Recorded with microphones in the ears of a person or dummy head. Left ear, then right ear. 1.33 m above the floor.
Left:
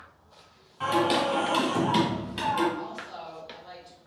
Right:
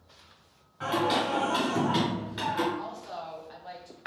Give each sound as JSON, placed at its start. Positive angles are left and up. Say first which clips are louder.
{"t": 0.8, "sound": "singing", "louder": "left 2 dB", "side_deg": 5, "distance_m": 1.6}
{"t": 2.8, "sound": "a woman speaking", "louder": "even", "side_deg": -25, "distance_m": 1.0}